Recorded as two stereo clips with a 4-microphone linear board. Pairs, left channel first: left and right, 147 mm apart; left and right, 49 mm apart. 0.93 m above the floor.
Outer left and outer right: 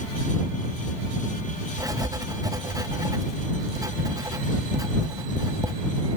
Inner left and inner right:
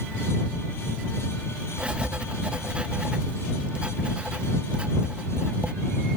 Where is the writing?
25° right (ahead or behind).